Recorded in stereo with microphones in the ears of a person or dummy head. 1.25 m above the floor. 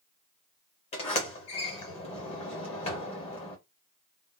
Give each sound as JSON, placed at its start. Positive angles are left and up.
{"t": 0.9, "sound": "a sliding door", "side_deg": 35, "distance_m": 0.8}